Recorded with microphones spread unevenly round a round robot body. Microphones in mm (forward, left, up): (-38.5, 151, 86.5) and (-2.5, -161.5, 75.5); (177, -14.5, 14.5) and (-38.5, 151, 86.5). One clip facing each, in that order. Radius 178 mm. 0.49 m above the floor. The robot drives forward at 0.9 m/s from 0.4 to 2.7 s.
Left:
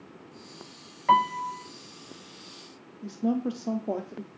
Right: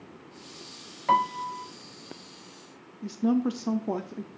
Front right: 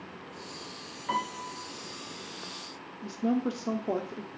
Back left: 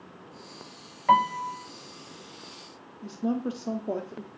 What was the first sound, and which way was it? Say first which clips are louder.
A piano: left 1 dB, back left 8 dB; straight behind.